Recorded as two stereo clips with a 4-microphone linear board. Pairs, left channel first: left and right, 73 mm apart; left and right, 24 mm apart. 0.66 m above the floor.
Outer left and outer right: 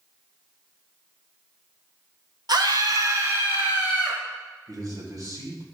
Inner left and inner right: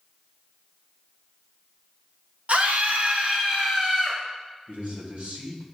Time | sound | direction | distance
2.5 | a scream | 70° right (ahead or behind) | 1.4 m
4.7 | a man speaking | 60° right (ahead or behind) | 3 m